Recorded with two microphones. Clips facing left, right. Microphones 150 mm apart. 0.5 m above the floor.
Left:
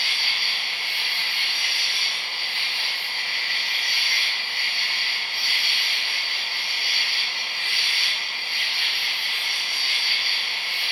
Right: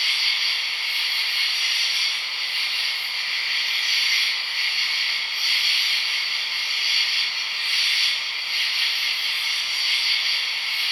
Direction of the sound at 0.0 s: 20° right (ahead or behind).